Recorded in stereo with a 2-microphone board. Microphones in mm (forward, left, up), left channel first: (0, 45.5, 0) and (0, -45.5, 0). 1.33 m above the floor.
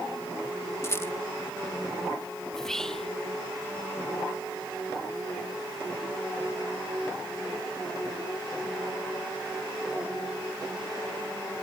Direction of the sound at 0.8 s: 30° left (ahead or behind).